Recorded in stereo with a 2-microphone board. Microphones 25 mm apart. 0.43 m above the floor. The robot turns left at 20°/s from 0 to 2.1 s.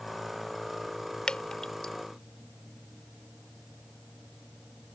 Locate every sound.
1.3 s dripping: 45° left (ahead or behind); by 1.9 s 40° left (ahead or behind)